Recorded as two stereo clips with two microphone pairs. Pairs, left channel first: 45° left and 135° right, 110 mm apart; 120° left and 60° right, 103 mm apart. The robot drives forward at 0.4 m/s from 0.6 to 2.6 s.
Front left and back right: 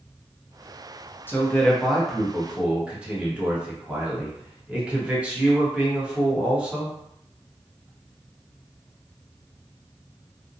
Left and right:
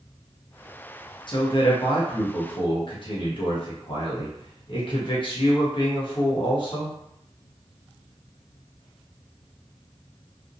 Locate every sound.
1.3 s a man speaking: 110° left, 0.6 m; by 7.0 s 145° left, 0.9 m